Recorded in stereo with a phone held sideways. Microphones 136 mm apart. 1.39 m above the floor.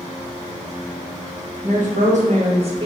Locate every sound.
1.6 s a woman speaking: 70° right (ahead or behind), 1.2 m; by 2.9 s 45° right (ahead or behind), 1.0 m